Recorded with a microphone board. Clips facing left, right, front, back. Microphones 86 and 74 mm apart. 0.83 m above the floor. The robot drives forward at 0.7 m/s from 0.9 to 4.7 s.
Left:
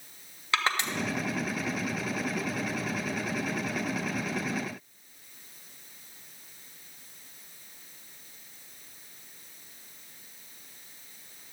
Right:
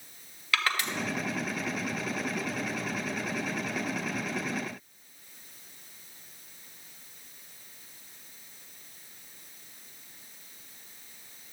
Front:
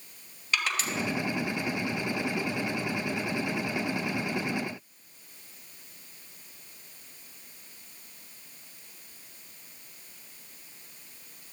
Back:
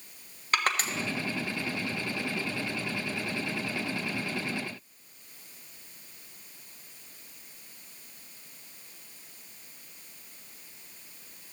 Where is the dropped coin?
No dropped coin in this recording.